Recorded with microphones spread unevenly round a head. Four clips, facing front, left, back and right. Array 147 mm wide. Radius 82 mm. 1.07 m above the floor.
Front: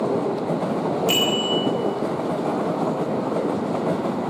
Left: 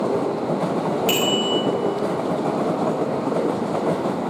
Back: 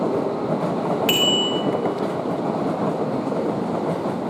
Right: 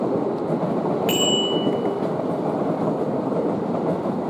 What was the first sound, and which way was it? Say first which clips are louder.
A bicycle bell: even, back 1 dB; straight behind.